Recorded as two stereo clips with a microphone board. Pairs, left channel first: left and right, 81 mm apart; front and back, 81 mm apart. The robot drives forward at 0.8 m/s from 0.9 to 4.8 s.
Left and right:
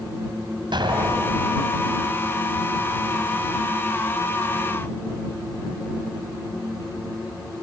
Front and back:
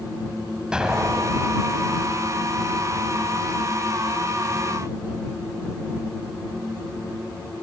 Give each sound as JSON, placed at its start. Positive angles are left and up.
{"t": 0.7, "sound": "an explosion", "azimuth_deg": -100, "distance_m": 1.8}